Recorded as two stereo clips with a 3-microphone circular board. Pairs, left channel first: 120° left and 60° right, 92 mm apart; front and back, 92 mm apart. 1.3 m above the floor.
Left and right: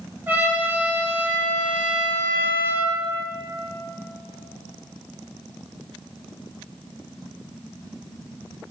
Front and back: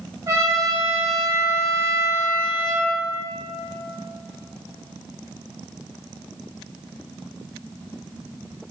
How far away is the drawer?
I don't hear a drawer.